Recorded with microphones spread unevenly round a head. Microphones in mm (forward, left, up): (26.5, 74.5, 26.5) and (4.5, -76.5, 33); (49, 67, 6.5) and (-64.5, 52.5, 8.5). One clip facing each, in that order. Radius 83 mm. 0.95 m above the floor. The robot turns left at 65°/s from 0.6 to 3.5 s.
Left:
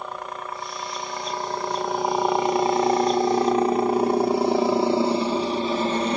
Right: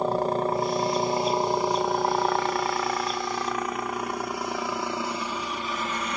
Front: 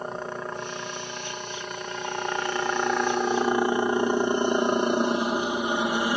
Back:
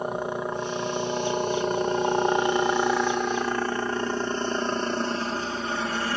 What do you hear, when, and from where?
0.0 s a helicopter: 100° right; by 6.2 s 70° left